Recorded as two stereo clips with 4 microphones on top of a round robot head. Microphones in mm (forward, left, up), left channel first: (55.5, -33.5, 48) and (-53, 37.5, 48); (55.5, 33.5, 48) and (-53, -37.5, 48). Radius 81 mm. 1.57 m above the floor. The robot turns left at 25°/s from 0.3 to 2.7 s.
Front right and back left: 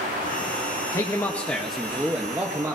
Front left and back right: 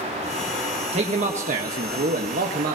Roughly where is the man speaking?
Right.